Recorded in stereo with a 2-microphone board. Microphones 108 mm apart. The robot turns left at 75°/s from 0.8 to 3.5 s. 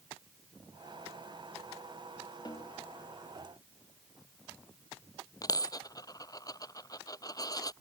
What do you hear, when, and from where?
2.5 s a snare drum: 40° left (ahead or behind); by 2.8 s 65° left (ahead or behind)
5.4 s a dropped coin: 35° left (ahead or behind)